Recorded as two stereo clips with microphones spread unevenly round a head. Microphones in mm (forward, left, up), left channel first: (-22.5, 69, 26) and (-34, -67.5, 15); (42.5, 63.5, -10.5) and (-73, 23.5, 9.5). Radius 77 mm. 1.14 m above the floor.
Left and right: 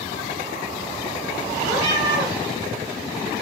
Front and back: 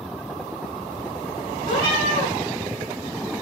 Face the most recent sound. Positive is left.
turn(degrees=-40)